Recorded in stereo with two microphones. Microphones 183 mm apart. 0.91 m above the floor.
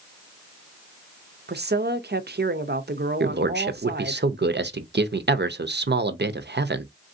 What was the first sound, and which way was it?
A woman speaking, 60° right (ahead or behind).